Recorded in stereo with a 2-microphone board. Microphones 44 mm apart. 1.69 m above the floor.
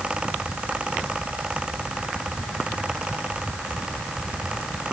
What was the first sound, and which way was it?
Only background noise.